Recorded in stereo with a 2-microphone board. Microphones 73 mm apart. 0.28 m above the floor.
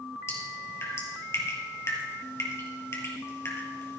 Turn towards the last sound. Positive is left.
turn(degrees=40)  # may be behind; listen again after turning